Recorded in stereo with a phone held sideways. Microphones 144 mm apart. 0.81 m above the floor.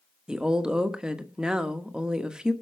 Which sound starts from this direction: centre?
A woman speaking, at 0.3 s.